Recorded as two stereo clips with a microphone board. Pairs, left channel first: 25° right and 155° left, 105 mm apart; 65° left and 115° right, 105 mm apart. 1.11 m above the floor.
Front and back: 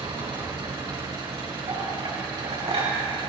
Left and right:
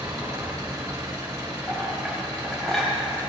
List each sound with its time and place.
0.0 s an engine running: 170° right, 3.5 m
1.7 s a clink: 155° left, 5 m